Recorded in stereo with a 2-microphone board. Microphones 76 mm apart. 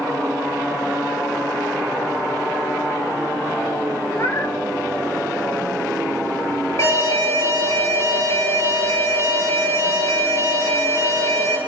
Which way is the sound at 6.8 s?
40° left (ahead or behind).